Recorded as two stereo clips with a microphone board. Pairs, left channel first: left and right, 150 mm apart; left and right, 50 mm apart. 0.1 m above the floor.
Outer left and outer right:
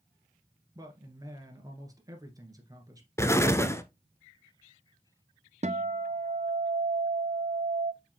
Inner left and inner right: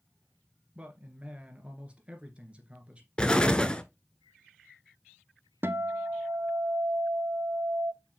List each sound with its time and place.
0.8 s a man speaking: 25° right (ahead or behind), 1.9 m
3.2 s an explosion: 20° left (ahead or behind), 0.8 m
5.6 s a guitar: 50° right (ahead or behind), 0.7 m